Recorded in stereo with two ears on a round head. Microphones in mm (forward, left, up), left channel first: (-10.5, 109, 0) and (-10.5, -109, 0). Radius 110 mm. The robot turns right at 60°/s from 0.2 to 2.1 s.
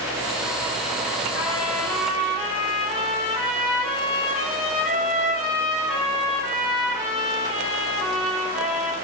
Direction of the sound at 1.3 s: 135° left.